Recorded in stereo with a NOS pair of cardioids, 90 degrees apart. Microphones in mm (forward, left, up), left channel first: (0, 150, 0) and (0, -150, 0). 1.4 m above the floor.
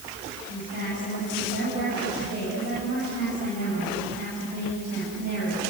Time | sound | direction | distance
0.5 | a woman speaking | 70° right | 9.5 m